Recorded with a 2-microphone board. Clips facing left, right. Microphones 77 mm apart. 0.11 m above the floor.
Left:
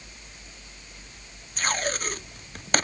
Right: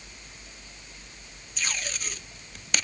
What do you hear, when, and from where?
1.6 s tape being pulled: 45° left (ahead or behind)